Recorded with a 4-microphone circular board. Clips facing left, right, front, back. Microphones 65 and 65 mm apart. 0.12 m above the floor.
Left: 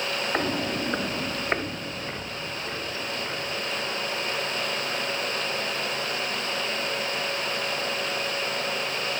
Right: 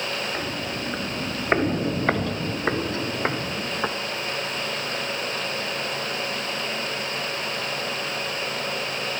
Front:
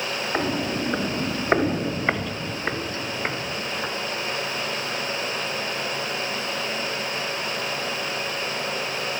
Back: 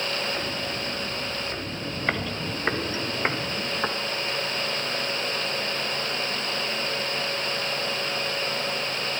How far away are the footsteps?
About 1.7 m.